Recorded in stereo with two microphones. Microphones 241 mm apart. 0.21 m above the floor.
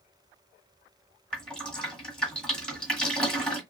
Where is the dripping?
5° left (ahead or behind), 1.5 m.